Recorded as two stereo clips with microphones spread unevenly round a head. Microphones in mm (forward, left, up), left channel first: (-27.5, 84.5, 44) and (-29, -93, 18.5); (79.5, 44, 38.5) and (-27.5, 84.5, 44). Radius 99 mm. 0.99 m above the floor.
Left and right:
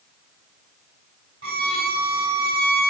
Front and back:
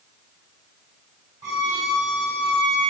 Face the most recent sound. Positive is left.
turn(degrees=-130)